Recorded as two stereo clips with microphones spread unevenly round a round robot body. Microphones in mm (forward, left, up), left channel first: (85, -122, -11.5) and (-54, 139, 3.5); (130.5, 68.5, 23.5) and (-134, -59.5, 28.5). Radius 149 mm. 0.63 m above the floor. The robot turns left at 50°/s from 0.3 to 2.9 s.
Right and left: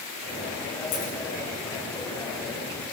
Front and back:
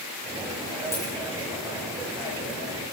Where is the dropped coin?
55° right, 8.5 m; by 1.1 s 65° right, 8.5 m.